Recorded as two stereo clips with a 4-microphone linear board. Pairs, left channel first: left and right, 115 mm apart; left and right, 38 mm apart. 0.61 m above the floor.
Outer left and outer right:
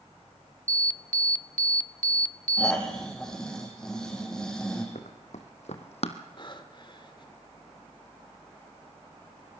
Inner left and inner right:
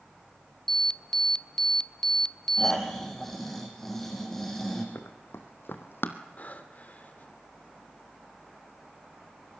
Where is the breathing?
45° left (ahead or behind), 1.9 m.